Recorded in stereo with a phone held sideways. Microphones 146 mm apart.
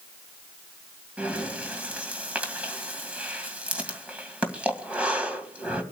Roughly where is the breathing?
Centre.